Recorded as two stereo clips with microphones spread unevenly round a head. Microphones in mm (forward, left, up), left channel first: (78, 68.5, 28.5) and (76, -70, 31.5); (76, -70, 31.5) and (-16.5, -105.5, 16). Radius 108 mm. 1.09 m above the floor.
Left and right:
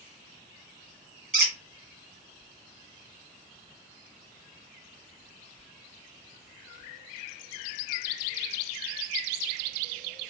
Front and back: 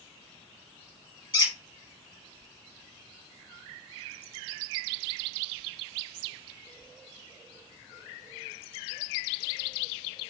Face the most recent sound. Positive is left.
turn(degrees=-20)